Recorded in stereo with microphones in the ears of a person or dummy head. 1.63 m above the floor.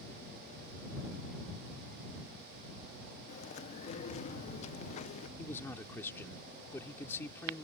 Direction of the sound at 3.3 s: 35° left (ahead or behind).